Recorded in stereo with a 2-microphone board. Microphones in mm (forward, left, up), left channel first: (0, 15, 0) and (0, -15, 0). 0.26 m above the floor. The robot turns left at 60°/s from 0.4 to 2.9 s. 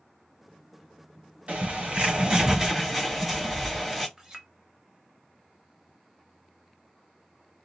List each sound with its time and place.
1.5 s a bird: 85° right, 1.7 m; by 4.1 s 170° right, 1.7 m
4.2 s a clink: 20° right (ahead or behind), 0.7 m